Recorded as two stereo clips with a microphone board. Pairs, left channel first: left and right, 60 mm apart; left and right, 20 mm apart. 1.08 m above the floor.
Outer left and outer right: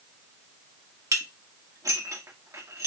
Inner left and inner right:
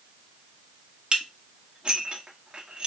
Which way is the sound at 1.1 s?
60° right (ahead or behind).